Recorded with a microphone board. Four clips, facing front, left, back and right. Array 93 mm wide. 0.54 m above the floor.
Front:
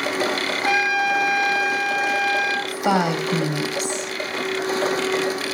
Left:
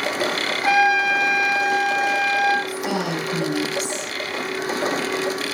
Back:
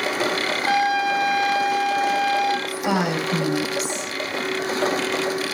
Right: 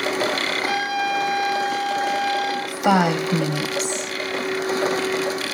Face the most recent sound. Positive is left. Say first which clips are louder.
# right 6 dB, front 2 dB
turn(degrees=-60)